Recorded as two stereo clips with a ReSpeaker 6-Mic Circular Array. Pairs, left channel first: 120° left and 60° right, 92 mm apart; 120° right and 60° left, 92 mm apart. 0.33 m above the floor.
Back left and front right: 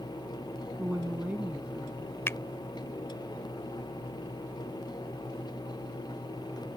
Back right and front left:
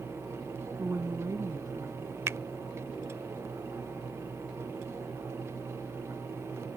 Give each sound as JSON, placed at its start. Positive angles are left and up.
{"t": 0.8, "sound": "a woman speaking", "azimuth_deg": 0}
{"t": 2.3, "sound": "a finger snap", "azimuth_deg": 90}